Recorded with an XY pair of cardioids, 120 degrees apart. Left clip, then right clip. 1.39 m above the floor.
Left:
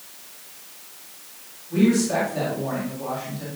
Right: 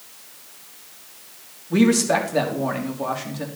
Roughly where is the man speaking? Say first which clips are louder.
Right 3 dB; ahead right.